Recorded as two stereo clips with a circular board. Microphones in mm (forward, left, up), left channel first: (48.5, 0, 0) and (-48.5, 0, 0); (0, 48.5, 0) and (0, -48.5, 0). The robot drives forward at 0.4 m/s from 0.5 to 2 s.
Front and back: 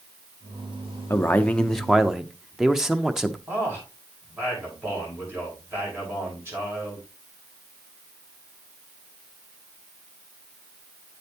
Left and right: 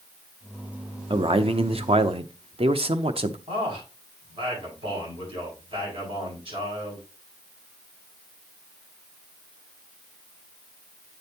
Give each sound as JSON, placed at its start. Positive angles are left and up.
{"t": 1.1, "sound": "a man speaking", "azimuth_deg": -65, "distance_m": 0.7}
{"t": 3.5, "sound": "a man speaking", "azimuth_deg": -115, "distance_m": 6.5}